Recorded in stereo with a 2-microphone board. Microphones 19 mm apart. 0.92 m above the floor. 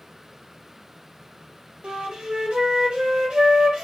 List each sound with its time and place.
1.8 s a flute: 80° right, 1.7 m